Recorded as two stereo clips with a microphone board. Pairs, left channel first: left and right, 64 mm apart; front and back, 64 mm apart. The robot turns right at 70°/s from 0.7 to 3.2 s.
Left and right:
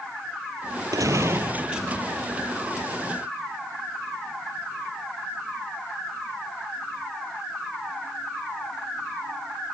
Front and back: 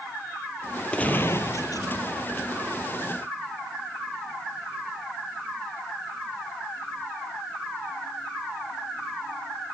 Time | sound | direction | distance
0.9 | a gunshot | 75° right | 0.9 m